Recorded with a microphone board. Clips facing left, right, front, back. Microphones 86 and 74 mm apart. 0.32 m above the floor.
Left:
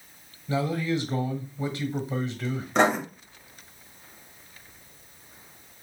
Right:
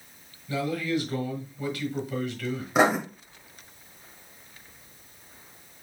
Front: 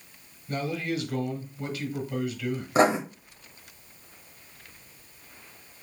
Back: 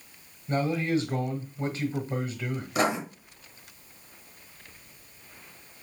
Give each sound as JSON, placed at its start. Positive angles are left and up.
{"t": 0.5, "sound": "a man speaking", "azimuth_deg": 140, "distance_m": 1.3}
{"t": 2.8, "sound": "writing", "azimuth_deg": -15, "distance_m": 1.2}